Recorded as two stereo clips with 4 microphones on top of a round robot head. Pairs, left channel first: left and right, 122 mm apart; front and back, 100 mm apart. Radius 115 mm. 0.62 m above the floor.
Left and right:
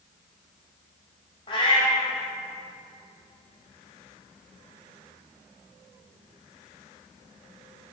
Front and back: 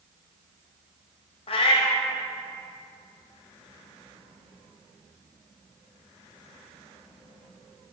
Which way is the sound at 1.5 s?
30° left.